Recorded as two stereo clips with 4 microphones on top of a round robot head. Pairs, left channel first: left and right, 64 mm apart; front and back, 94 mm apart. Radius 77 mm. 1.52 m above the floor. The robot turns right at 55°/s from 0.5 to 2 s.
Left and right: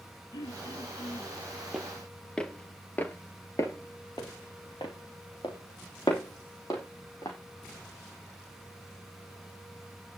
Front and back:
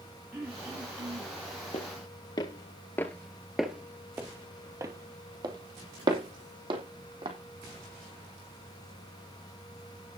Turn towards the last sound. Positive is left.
turn(degrees=150)